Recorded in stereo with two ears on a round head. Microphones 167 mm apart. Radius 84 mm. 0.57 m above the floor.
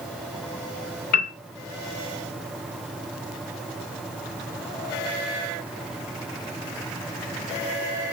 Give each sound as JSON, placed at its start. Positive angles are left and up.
{"t": 1.1, "sound": "a piano", "side_deg": 50, "distance_m": 2.5}